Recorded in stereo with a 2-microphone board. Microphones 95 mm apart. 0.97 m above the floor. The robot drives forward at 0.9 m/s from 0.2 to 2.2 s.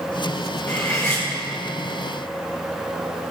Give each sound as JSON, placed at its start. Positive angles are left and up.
{"t": 0.7, "sound": "cutlery clinking", "side_deg": 30, "distance_m": 3.0}